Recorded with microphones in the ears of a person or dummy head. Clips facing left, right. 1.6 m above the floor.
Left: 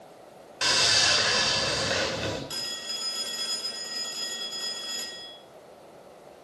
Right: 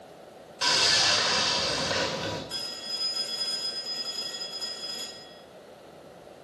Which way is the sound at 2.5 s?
55° left (ahead or behind).